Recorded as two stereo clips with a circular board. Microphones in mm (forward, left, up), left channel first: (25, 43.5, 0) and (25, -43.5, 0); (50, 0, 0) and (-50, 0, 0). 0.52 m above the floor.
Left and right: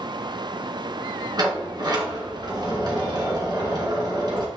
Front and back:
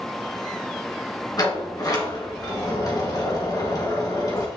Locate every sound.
1.4 s a sliding door: 50° right, 1.8 m